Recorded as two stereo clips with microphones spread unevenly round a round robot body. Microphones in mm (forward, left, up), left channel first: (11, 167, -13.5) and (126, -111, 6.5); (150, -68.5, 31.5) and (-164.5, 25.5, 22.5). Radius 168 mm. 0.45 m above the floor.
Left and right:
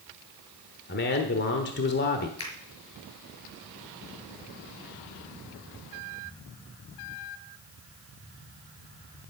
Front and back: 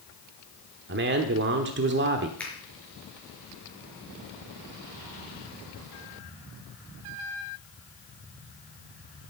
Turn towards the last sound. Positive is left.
turn(degrees=70)